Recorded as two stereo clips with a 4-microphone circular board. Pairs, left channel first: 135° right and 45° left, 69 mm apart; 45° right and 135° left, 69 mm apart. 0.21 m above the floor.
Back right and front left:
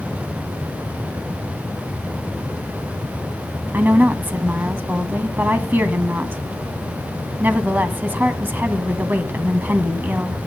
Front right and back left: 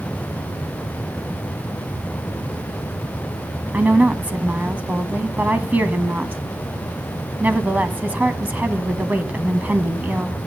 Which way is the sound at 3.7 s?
85° left.